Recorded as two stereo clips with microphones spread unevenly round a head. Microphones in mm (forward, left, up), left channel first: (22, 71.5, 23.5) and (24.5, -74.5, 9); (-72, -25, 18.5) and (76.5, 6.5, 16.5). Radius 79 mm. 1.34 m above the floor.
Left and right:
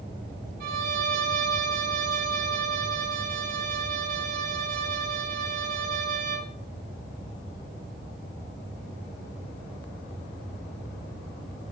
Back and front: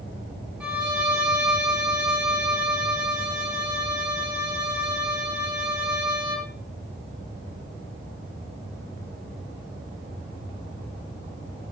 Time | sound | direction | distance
0.6 | a violin | 70° right | 2.5 m